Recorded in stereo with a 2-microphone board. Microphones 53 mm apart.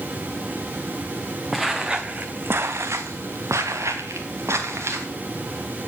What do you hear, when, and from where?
1.5 s footsteps: 5° right (ahead or behind), 1.0 m; by 5.1 s 65° right (ahead or behind), 2 m